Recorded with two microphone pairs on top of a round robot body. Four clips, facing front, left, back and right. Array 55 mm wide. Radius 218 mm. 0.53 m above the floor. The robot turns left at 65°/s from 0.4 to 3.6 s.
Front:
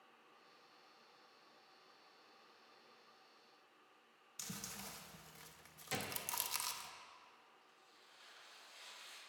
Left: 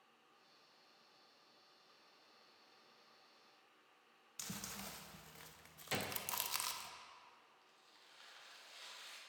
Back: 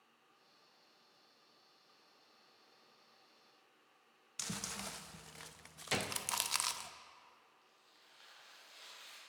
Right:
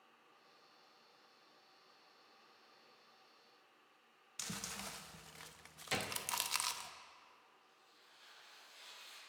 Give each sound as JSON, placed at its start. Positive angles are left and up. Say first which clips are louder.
{"t": 4.4, "sound": "chewing", "louder": "right 3 dB, back 6 dB", "azimuth_deg": -150, "distance_m": 0.7}
{"t": 5.9, "sound": "a gunshot", "louder": "right 2 dB, back 6 dB", "azimuth_deg": -155, "distance_m": 0.8}
{"t": 7.6, "sound": "tearing paper", "louder": "even, front 1 dB", "azimuth_deg": 125, "distance_m": 3.0}